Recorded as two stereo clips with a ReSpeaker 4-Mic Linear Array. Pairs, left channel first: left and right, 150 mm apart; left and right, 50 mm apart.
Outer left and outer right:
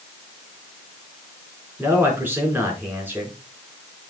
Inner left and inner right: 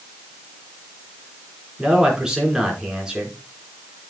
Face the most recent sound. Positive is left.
turn(degrees=-15)  # may be behind; listen again after turning